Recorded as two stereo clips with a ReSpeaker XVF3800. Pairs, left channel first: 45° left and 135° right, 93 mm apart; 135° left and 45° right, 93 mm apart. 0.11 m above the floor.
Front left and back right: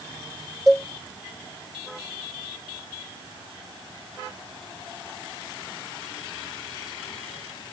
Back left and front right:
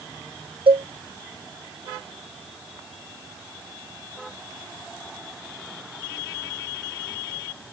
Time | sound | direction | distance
0.7 | a cowbell | 40° right | ?